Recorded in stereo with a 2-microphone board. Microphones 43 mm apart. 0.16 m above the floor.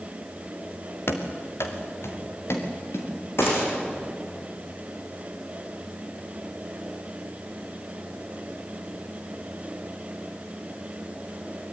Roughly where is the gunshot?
Left.